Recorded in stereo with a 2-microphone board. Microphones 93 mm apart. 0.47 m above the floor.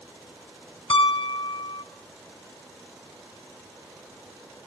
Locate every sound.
0.9 s a piano: 60° left (ahead or behind), 0.8 m